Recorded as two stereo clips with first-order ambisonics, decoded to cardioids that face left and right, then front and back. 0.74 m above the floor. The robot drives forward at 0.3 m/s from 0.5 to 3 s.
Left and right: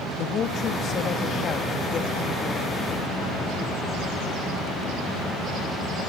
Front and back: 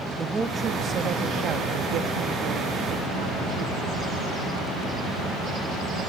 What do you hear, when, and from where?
0.2 s a woman speaking: 115° left, 0.5 m; by 4.2 s 165° left, 1.0 m